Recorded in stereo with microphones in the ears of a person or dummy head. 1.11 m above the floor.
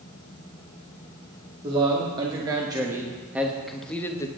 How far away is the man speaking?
About 2 m.